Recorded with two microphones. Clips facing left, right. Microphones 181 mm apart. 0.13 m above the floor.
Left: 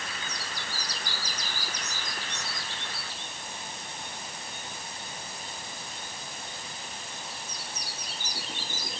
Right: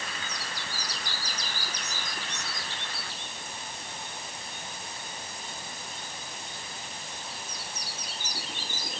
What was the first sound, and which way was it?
Only background noise.